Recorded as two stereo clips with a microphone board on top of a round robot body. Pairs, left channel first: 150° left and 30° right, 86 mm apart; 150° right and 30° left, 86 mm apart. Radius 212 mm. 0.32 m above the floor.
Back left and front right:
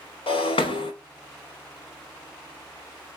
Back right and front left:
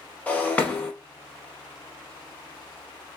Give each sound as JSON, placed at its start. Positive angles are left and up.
{"t": 0.3, "sound": "breaking glass", "azimuth_deg": 135, "distance_m": 0.6}